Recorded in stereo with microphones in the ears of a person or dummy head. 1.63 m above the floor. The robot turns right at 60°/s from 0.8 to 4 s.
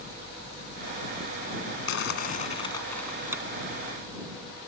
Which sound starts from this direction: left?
Crumpling, at 1.9 s.